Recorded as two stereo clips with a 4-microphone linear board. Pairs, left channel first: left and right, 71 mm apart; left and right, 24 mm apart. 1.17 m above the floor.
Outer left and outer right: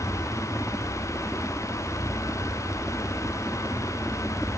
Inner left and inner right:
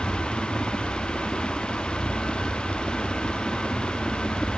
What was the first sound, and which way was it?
A helicopter, 10° right (ahead or behind).